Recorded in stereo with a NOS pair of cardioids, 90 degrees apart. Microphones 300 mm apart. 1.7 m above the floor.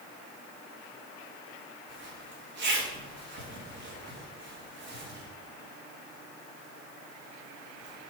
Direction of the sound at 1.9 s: 40° right.